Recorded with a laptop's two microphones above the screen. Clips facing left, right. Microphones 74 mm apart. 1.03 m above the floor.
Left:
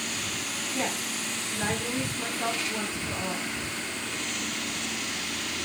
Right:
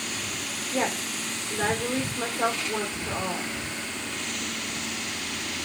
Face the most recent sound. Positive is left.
turn(degrees=-85)